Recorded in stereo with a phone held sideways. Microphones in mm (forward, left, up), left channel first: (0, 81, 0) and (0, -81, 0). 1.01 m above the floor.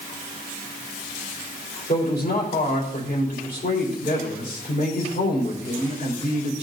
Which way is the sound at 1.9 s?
75° left (ahead or behind).